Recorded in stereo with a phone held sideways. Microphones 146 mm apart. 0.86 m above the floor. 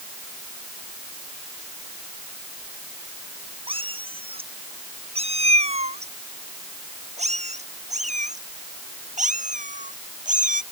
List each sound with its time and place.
3.7 s a cat meowing: 40° right (ahead or behind); by 10.6 s 60° right (ahead or behind)